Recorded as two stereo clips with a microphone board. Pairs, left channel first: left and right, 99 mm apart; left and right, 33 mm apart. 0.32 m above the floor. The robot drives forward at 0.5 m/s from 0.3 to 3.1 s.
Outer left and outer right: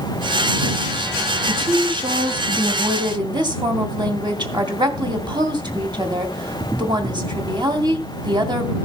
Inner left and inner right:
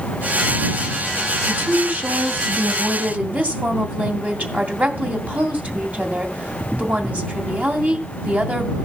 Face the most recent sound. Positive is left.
turn(degrees=-50)  # may be behind; listen again after turning